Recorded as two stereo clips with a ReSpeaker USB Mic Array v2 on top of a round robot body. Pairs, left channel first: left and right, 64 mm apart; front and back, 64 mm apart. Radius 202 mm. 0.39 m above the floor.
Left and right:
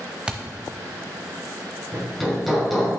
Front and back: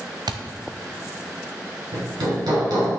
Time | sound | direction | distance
0.3 | a thud | 170° right | 0.9 m
1.9 | hammering | straight behind | 3.5 m